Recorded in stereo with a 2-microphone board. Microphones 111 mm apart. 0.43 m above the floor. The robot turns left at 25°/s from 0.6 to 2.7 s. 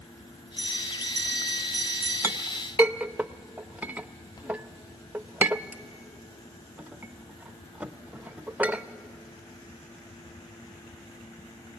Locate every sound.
0.6 s a bell: 55° left, 5 m; by 2.1 s 15° left, 5 m
2.2 s a clink: 25° right (ahead or behind), 0.5 m; by 8.8 s 15° right (ahead or behind), 0.5 m